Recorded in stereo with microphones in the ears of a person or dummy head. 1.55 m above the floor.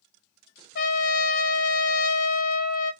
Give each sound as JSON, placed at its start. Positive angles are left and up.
{"t": 0.8, "sound": "a trumpet", "side_deg": 50, "distance_m": 0.5}